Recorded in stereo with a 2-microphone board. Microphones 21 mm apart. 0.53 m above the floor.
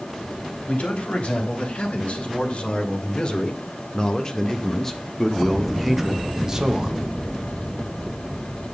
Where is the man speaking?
65° left (ahead or behind), 3.5 m; by 7.0 s 30° right (ahead or behind), 1.8 m.